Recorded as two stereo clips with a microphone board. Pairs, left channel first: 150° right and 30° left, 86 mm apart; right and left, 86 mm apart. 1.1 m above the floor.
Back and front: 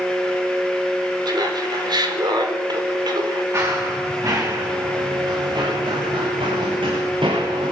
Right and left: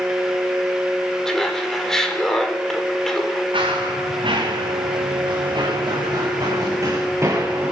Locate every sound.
1.2 s laughter: 5° right, 4 m
3.5 s running footsteps: 85° left, 7 m; by 7.7 s 25° left, 6 m